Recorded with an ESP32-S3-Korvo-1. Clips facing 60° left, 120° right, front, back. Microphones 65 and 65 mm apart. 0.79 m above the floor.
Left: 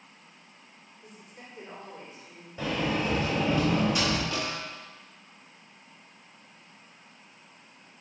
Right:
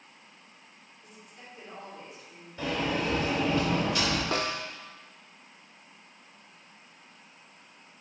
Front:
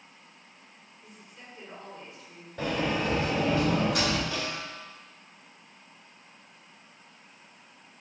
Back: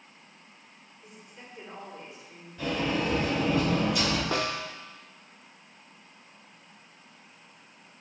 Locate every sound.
1.0 s a woman speaking: 105° left, 2.5 m
2.6 s a sliding door: 10° right, 2.5 m
4.3 s a snare drum: 160° right, 0.6 m